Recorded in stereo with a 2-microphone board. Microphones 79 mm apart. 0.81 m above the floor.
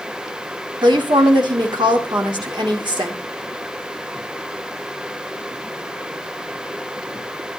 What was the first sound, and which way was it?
A woman speaking, 70° right (ahead or behind).